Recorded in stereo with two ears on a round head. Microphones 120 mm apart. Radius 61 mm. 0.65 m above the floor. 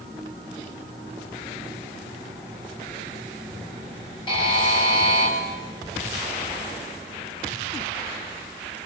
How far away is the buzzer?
About 8 m.